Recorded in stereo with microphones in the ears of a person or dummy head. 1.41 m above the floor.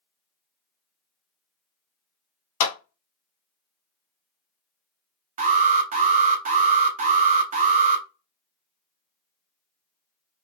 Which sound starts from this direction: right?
An alarm, at 5.4 s.